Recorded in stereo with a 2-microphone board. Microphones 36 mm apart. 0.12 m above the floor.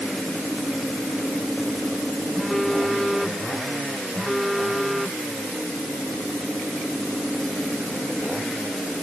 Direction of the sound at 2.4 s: Centre (ahead or behind).